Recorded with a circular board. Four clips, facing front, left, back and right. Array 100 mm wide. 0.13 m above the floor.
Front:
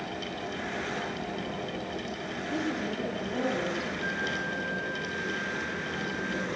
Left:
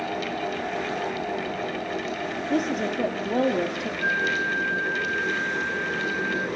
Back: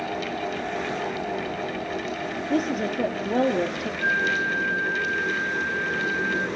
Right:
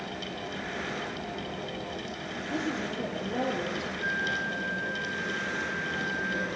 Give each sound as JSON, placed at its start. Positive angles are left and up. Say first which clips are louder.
{"t": 2.5, "sound": "a woman speaking", "louder": "left 7 dB, back 7 dB", "azimuth_deg": 145, "distance_m": 3.0}
{"t": 4.0, "sound": "a flute", "louder": "left 7 dB, back 8 dB", "azimuth_deg": 150, "distance_m": 1.6}